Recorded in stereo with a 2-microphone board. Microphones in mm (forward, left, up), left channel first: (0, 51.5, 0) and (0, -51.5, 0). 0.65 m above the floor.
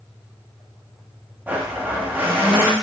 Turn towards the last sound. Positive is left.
turn(degrees=-15)  # may be behind; listen again after turning